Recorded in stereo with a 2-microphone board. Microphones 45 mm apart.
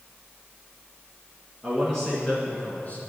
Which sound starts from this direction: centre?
A man speaking, at 1.6 s.